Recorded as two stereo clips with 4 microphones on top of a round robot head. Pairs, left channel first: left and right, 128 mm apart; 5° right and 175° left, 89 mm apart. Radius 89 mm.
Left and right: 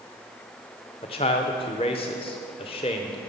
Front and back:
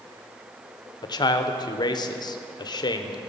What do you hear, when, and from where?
1.0 s a man speaking: 35° left, 0.7 m